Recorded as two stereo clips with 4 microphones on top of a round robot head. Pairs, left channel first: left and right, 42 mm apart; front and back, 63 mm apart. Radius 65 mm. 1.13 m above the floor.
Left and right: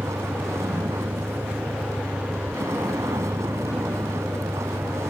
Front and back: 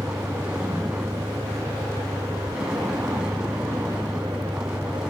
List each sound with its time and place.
0.0 s a vehicle: 100° right